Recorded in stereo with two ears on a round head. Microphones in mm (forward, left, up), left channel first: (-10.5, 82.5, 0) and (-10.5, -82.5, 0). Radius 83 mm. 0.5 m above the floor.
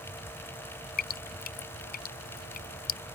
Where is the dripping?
55° left (ahead or behind).